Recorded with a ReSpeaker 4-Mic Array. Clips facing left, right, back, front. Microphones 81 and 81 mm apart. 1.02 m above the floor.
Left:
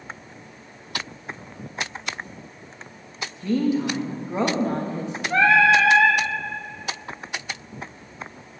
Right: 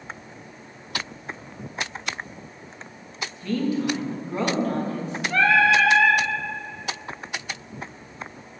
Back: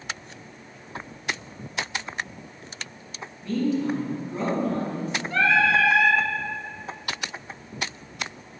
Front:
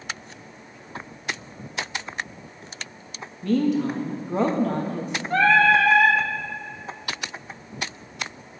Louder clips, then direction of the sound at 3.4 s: Left 2 dB, front 3 dB; 20° left.